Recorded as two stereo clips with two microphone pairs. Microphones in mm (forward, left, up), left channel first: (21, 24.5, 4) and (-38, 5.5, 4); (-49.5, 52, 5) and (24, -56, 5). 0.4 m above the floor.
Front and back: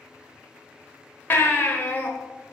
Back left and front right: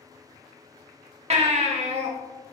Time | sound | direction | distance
1.3 | a baby crying | 30° right | 0.6 m